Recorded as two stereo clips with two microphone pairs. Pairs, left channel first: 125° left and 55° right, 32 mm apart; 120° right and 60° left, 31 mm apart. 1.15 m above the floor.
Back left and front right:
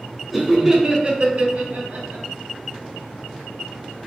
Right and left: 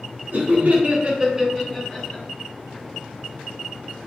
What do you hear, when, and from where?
0.3 s laughter: 40° left, 0.8 m; by 2.2 s 55° right, 0.9 m